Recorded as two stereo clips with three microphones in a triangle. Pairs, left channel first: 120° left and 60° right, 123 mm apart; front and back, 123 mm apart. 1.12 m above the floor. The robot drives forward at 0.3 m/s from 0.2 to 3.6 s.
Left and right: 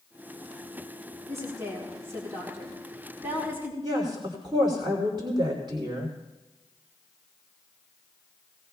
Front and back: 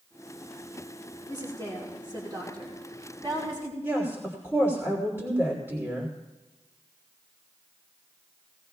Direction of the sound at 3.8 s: 110° right.